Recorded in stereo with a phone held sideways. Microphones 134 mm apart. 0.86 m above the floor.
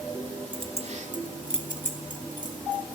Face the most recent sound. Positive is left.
turn(degrees=-85)